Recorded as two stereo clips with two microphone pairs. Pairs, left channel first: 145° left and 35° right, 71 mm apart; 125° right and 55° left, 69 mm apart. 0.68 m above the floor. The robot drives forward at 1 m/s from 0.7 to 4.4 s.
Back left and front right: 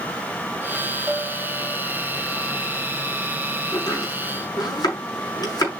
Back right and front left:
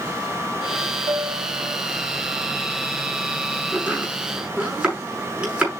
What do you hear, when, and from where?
1.1 s a bell: 40° left, 6.5 m; by 1.8 s 45° left, 6 m
3.7 s chopping: 125° left, 5.5 m; by 5.7 s 130° left, 6 m